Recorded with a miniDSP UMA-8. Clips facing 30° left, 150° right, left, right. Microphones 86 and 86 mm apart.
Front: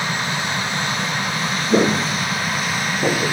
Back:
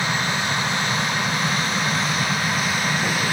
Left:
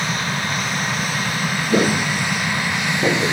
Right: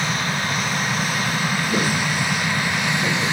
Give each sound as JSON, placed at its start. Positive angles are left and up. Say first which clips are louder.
{"t": 1.7, "sound": "footsteps", "louder": "front 6 dB, left 8 dB", "azimuth_deg": 40}